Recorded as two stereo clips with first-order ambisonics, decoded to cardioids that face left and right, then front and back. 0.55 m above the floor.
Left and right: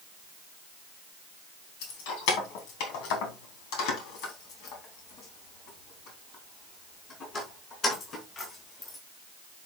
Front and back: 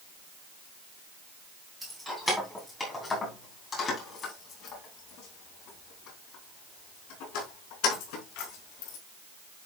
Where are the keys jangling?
95° left, 3 m; by 9.0 s 20° left, 5 m.